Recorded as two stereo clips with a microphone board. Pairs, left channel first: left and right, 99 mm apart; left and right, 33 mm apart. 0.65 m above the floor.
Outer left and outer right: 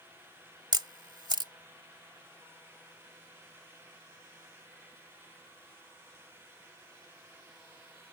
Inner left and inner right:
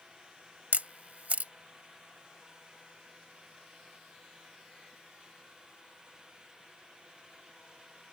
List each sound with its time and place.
0.7 s a camera shutter: 50° right (ahead or behind)